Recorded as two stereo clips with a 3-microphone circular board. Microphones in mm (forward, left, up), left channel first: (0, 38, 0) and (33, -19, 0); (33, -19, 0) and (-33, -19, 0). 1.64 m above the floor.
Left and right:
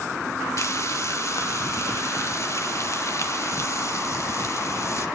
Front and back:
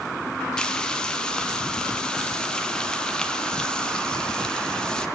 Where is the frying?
75° left, 1.6 m.